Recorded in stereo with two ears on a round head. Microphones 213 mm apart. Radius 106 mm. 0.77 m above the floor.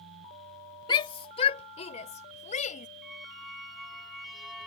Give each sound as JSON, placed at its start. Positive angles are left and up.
{"t": 0.9, "sound": "a shout", "side_deg": 20}
{"t": 3.0, "sound": "a squeak", "side_deg": 0}